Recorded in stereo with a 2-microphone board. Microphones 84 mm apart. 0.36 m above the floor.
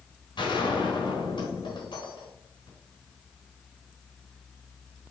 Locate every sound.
0.4 s a gunshot: 70° left (ahead or behind), 4 m